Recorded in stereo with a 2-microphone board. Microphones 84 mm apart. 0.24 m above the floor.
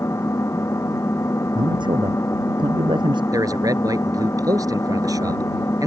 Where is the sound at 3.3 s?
50° right (ahead or behind).